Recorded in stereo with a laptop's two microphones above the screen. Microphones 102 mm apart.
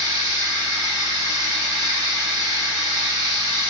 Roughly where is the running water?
Right.